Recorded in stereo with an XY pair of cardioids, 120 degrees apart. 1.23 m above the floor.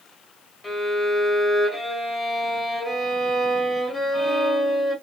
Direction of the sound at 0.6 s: 20° left.